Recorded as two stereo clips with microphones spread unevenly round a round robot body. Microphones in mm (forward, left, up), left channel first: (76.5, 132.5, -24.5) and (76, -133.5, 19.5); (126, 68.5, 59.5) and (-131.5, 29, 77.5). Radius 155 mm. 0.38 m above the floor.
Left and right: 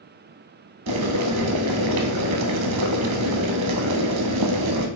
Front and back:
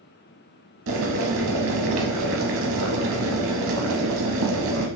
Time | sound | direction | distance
0.9 | boiling | 125° right | 0.5 m